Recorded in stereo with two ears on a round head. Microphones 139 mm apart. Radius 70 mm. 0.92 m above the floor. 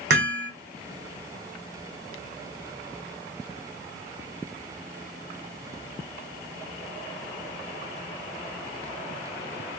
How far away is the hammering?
About 3.5 m.